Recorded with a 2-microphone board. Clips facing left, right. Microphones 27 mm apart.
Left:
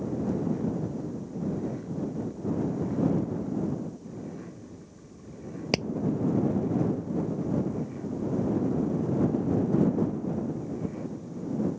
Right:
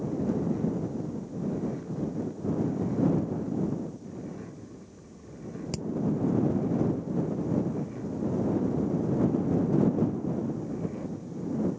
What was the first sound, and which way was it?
Hammering, 55° left (ahead or behind).